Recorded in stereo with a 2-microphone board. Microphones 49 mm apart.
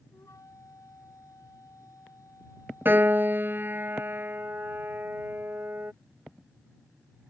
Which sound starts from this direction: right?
A piano, at 2.9 s.